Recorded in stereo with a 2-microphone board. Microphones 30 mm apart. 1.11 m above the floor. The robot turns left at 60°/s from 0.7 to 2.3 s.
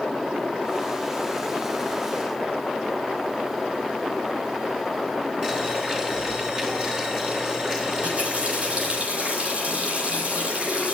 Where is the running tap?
40° right (ahead or behind), 5.5 m.